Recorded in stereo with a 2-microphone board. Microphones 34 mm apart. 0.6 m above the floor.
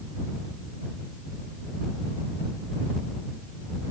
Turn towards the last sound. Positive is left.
No sound to turn to.